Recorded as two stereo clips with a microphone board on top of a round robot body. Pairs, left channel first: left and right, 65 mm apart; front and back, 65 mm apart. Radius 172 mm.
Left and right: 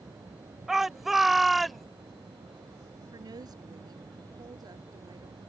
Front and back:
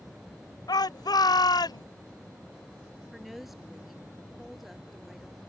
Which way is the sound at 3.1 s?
90° right.